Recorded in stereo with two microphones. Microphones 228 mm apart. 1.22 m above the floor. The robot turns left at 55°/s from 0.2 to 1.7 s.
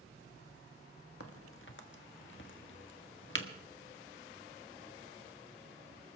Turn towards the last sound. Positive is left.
turn(degrees=55)  # may be behind; listen again after turning